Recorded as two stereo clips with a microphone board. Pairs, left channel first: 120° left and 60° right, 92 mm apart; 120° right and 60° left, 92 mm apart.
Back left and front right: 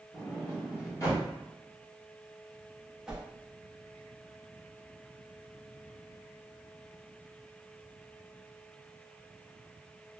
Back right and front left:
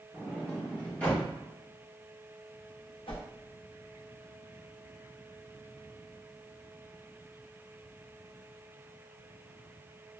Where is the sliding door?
170° left, 1.0 m.